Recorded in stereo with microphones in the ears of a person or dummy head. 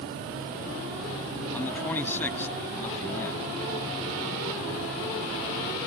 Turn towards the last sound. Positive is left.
turn(degrees=15)  # may be behind; listen again after turning